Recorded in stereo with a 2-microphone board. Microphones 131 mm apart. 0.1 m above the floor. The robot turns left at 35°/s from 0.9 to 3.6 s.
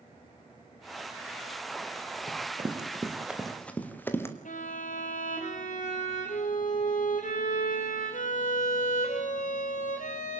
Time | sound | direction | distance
2.3 | running footsteps | 50° right (ahead or behind) | 4 m
4.5 | a violin | 75° left (ahead or behind) | 4 m